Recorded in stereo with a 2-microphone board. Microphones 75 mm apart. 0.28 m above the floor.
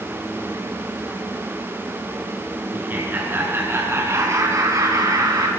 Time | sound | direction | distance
2.7 | laughter | 25° right (ahead or behind) | 4 m